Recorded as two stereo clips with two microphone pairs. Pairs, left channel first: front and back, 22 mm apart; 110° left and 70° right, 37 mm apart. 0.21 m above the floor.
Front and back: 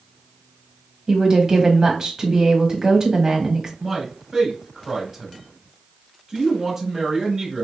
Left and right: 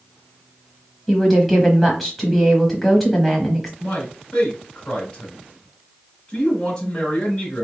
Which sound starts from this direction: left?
A man speaking, at 3.8 s.